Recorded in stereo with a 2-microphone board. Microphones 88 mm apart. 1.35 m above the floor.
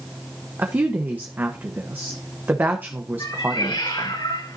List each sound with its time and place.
0.6 s a woman speaking: 20° right (ahead or behind), 1.0 m
3.2 s a cat meowing: 70° left (ahead or behind), 5.5 m